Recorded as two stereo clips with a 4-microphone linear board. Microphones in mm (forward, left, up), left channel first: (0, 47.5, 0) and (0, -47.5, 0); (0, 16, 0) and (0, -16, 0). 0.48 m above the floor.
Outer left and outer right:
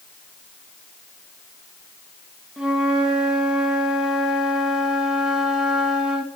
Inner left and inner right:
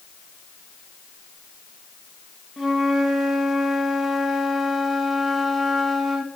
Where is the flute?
5° right (ahead or behind), 1.6 m.